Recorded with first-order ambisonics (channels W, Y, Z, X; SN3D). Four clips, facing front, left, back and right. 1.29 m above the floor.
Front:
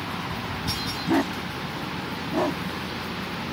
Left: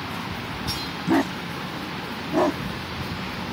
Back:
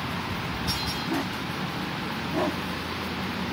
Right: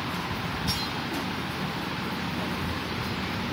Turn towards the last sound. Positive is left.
turn(degrees=85)